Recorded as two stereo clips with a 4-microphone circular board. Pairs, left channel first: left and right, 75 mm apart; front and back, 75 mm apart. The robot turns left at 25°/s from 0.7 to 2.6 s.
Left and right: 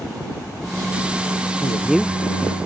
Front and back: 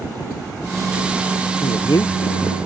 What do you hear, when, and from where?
1.6 s a man speaking: 5° left; by 2.2 s 10° right